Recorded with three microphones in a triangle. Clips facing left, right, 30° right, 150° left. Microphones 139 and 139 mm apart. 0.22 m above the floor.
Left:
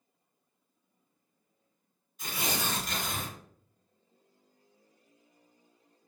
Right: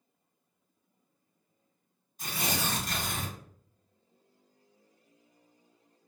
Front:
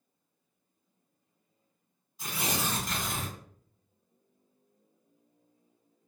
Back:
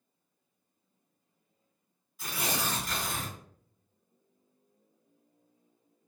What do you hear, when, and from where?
2.2 s tearing paper: 75° right, 1.8 m